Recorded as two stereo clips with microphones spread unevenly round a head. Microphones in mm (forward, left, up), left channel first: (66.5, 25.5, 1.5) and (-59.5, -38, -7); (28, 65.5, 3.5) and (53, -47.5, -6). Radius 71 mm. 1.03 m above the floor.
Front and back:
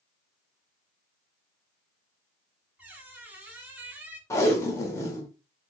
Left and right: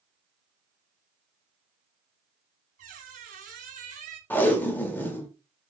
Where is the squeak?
75° right, 0.7 m.